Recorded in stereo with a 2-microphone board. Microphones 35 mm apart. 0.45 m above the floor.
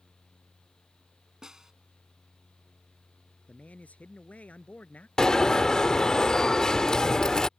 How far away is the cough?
No cough in this recording.